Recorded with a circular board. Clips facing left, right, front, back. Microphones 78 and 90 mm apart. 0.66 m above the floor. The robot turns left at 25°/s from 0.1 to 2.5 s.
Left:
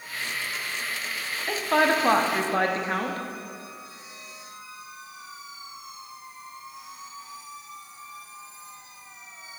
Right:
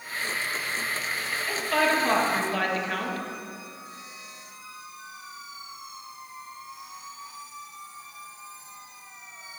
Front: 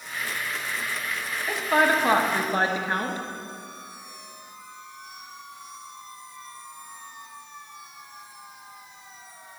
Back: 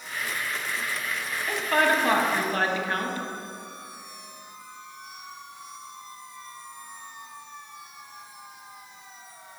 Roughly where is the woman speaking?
Left.